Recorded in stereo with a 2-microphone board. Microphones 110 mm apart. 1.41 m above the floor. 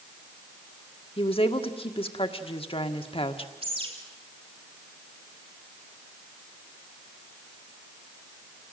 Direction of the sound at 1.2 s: 55° left (ahead or behind).